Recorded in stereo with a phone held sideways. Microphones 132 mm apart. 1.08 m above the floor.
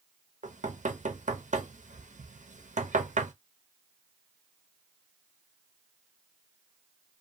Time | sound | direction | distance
0.4 | knocking | 70° right (ahead or behind) | 0.6 m